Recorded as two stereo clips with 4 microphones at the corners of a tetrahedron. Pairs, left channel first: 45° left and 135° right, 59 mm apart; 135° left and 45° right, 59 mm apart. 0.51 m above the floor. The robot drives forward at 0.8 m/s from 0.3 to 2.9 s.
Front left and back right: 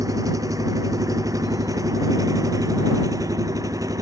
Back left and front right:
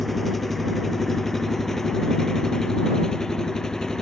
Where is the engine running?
135° right; by 4.0 s 145° right.